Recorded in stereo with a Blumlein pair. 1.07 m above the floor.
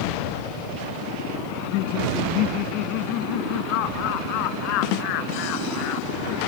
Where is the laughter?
40° left.